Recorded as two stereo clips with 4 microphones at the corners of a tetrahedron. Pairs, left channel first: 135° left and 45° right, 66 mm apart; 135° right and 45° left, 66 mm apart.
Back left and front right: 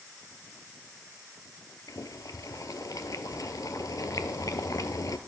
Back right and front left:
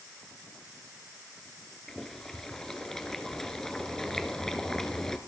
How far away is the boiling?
About 0.9 m.